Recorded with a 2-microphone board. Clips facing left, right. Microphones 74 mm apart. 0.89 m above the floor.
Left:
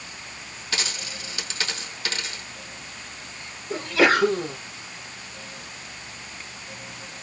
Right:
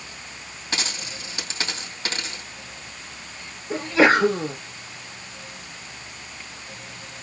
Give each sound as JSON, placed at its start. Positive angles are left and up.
{"t": 0.7, "sound": "a dropped coin", "side_deg": -35, "distance_m": 2.5}
{"t": 3.7, "sound": "a sneeze", "side_deg": -25, "distance_m": 1.0}